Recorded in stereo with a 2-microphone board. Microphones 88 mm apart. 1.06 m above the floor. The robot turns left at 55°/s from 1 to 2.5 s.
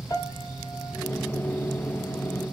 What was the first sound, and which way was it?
A piano, 50° left (ahead or behind).